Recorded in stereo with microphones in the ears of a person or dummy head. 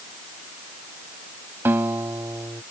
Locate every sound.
1.6 s a guitar: 10° right (ahead or behind)